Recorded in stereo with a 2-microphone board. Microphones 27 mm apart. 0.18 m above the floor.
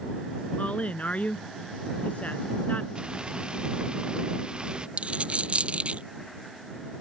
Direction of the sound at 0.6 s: 55° left (ahead or behind).